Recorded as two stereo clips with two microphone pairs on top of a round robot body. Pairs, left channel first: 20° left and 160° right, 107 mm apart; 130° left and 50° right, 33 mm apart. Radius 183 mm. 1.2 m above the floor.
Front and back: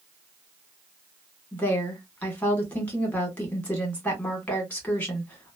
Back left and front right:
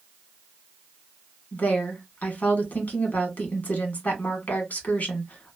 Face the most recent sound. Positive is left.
turn(degrees=100)